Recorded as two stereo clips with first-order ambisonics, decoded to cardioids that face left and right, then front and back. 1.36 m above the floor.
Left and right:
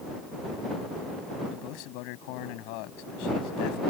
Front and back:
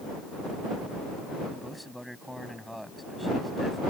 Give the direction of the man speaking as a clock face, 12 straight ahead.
9 o'clock.